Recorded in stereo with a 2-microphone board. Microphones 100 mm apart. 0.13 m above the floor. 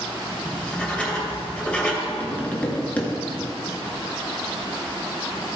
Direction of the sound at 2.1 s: 15° left (ahead or behind).